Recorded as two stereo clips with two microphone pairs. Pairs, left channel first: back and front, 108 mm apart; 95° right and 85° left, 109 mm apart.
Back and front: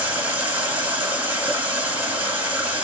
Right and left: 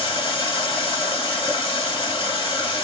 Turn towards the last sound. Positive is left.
turn(degrees=-75)